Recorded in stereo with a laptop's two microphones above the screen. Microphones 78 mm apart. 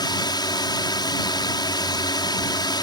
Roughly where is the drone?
Left.